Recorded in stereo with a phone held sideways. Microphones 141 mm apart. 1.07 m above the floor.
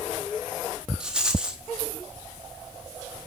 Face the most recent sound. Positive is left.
turn(degrees=-5)  # may be behind; listen again after turning